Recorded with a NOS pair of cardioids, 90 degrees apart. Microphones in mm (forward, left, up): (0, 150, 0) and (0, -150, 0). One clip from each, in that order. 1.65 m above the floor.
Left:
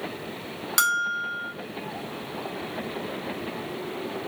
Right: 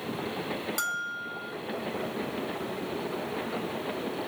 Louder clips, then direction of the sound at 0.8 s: Left 12 dB; 55° left.